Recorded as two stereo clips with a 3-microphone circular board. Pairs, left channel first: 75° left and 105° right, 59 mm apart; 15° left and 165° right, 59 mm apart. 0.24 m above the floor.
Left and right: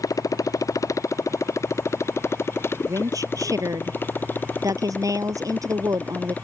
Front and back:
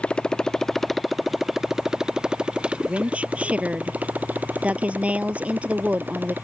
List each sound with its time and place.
0.0 s a motorcycle: 85° left; by 6.5 s 140° left
2.9 s a woman speaking: 100° right